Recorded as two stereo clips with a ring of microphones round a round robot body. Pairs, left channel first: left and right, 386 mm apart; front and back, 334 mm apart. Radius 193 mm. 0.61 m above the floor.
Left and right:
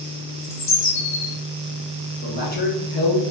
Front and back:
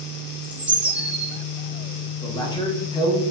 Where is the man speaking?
60° left, 1.1 m.